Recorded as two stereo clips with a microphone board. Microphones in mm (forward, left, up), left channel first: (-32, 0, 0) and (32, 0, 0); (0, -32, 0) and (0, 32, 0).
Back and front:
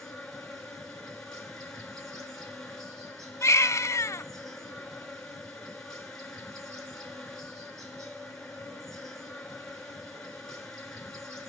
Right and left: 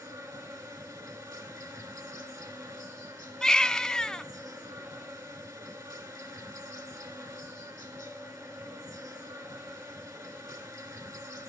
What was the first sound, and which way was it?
An insect, 100° left.